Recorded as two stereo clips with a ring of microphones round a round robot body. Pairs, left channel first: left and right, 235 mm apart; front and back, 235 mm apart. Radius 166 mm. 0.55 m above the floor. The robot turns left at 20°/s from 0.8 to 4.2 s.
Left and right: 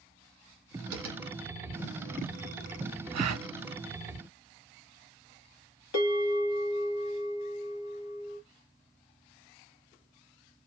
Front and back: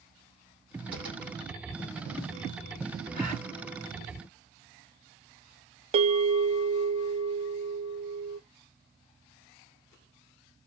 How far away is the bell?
About 0.8 m.